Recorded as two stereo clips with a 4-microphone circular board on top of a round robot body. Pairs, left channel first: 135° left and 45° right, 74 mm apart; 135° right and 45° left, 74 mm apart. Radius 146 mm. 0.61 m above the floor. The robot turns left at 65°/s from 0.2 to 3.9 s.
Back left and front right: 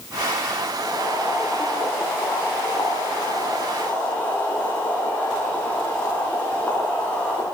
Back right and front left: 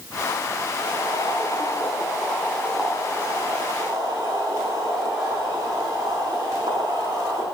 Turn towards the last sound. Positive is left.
turn(degrees=65)